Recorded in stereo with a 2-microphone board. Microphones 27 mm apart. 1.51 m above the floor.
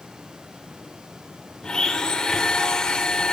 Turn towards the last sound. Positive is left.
turn(degrees=25)  # may be behind; listen again after turning